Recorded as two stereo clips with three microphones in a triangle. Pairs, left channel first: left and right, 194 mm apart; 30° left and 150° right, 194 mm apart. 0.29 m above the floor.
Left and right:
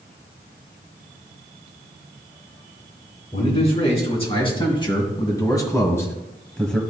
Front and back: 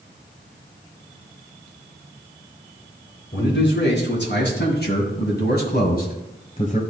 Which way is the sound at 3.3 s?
35° left.